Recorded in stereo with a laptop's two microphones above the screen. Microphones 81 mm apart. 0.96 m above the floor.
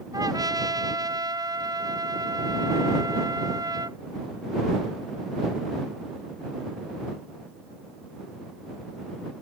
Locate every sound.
0.1 s a trumpet: 50° right (ahead or behind)